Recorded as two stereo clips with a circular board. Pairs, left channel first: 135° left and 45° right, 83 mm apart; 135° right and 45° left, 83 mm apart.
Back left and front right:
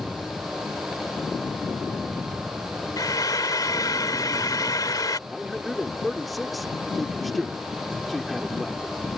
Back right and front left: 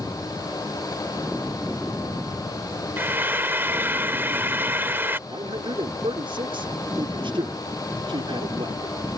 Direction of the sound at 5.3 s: 45° left.